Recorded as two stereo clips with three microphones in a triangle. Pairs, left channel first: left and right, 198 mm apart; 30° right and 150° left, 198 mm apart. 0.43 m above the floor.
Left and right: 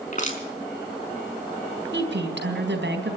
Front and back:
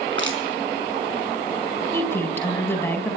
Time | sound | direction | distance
0.1 | crushing | 140° left | 5 m
1.9 | a woman speaking | 110° right | 4 m